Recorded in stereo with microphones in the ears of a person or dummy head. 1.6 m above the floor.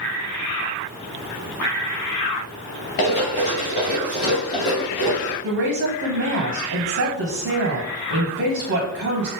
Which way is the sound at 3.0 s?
40° left (ahead or behind).